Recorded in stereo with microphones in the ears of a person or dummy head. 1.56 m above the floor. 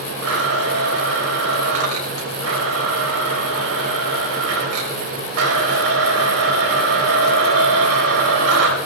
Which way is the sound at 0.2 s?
80° right.